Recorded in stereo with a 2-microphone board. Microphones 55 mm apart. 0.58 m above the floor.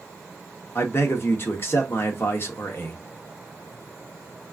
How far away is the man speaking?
About 1.2 m.